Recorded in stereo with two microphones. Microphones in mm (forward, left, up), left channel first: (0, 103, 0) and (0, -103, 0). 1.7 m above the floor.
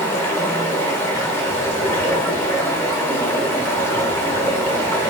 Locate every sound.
0.0 s running water: 10° left (ahead or behind), 0.8 m